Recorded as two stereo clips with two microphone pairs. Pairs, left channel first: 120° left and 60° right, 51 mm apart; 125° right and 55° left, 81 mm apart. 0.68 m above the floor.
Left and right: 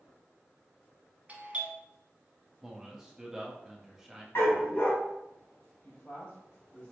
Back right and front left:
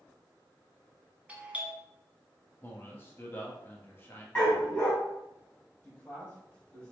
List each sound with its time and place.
1.3 s a doorbell: 15° right, 1.2 m
2.6 s a man speaking: 140° right, 1.1 m
4.3 s a dog barking: 160° left, 2 m
5.8 s a man speaking: 165° left, 2.5 m